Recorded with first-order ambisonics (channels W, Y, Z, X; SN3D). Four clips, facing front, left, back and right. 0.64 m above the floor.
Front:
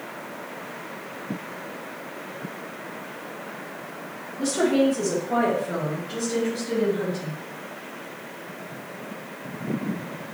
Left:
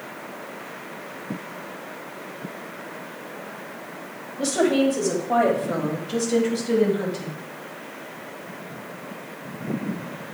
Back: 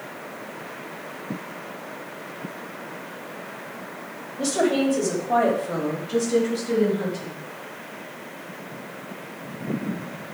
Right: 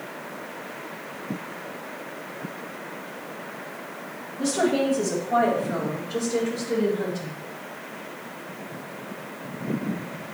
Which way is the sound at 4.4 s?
135° left.